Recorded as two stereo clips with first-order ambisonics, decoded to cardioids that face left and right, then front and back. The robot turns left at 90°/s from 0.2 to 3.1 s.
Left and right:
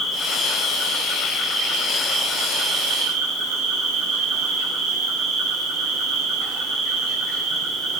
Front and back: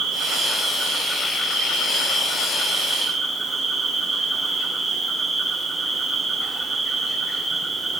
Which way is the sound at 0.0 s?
160° left.